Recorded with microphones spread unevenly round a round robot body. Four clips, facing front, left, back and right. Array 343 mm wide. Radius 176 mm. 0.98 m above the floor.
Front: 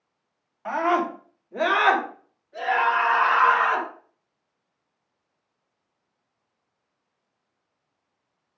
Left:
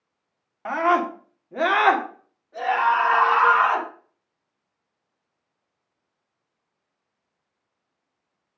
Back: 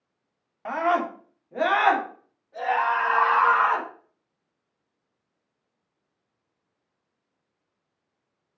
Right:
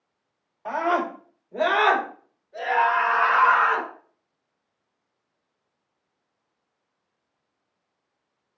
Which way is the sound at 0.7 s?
110° left.